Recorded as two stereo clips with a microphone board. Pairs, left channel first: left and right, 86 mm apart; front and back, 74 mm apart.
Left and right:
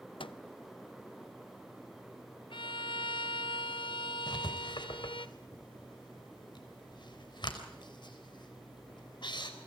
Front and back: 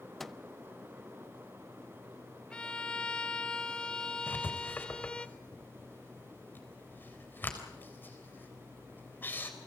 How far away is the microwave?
About 0.7 m.